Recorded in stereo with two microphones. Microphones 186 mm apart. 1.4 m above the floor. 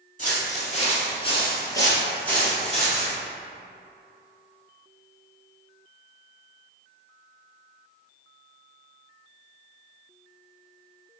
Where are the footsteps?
45° left (ahead or behind), 1.9 m; by 3.1 s 5° right (ahead or behind), 2.5 m.